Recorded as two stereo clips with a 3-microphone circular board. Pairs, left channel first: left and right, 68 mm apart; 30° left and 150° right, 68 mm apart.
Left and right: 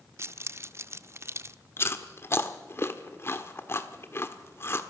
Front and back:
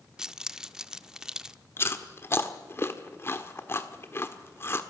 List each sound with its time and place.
0.2 s keys jangling: 75° right, 0.6 m
1.8 s chewing: 60° left, 1.5 m